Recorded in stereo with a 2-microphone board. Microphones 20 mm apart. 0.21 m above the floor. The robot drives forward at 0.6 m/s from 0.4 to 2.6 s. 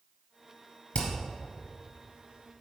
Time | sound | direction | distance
0.9 | hammering | 55° left (ahead or behind) | 2 m